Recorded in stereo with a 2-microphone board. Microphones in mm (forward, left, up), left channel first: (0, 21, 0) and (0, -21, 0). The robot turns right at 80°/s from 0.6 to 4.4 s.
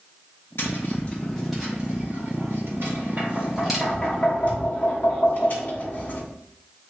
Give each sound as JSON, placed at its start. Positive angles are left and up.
{"t": 0.6, "sound": "tapping", "side_deg": 65, "distance_m": 2.0}